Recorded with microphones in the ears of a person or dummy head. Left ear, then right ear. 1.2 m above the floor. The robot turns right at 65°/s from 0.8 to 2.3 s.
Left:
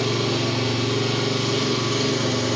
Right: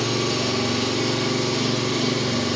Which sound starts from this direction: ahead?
An engine running, at 0.0 s.